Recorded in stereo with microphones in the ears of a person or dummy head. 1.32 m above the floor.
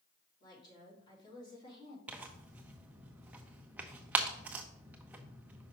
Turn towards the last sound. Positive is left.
turn(degrees=-10)  # may be behind; listen again after turning